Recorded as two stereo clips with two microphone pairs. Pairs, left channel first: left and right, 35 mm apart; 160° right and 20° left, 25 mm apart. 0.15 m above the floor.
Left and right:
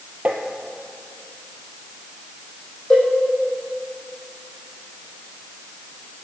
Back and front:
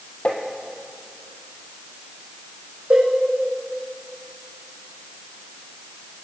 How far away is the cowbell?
About 5 m.